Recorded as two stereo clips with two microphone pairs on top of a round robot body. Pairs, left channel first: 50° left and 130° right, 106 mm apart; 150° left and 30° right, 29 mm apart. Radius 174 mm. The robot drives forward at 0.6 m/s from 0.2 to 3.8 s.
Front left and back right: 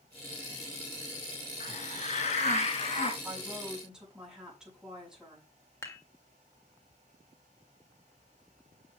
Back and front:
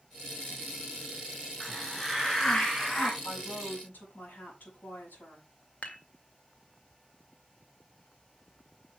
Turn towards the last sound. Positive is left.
turn(degrees=115)